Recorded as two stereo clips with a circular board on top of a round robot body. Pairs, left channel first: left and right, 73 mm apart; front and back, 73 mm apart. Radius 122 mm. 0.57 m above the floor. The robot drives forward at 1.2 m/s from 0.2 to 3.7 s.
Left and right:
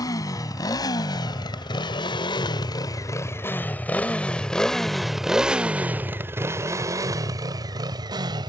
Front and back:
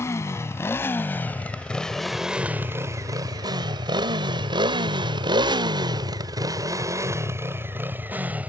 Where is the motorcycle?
55° left; by 8.5 s 110° right.